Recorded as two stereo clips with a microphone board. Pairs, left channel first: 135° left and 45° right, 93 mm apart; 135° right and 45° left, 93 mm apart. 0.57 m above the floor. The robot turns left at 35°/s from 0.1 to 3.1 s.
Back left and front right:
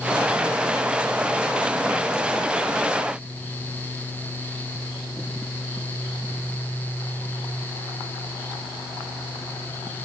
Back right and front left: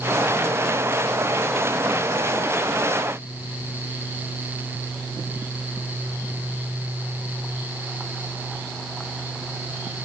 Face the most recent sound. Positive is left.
No sound to turn to.